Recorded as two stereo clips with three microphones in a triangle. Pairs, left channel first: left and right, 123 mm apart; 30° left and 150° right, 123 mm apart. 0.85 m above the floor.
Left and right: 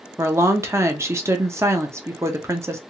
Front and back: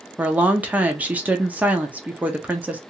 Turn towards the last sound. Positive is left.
turn(degrees=-90)